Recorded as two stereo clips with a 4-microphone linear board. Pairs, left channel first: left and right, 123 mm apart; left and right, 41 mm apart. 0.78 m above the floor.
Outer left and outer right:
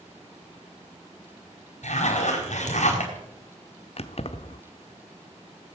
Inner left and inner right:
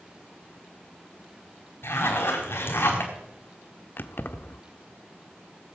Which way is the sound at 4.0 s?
55° left (ahead or behind).